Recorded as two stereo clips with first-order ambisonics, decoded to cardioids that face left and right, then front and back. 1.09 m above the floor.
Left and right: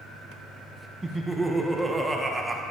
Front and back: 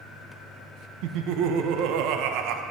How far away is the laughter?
About 0.6 m.